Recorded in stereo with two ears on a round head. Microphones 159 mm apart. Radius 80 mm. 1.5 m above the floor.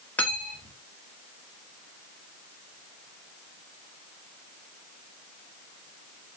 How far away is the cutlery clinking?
About 1.6 m.